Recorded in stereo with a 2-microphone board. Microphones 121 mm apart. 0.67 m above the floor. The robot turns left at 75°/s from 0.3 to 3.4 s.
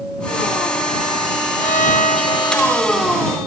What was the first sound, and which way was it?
A violin, 105° left.